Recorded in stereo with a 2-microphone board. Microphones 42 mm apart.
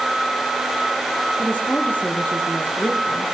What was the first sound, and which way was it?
A woman speaking, 40° left (ahead or behind).